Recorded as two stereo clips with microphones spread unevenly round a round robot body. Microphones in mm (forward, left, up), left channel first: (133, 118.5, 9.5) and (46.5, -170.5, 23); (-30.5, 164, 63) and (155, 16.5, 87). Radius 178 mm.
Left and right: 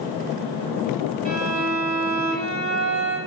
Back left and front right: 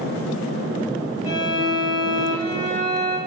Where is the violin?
65° right, 1.7 m.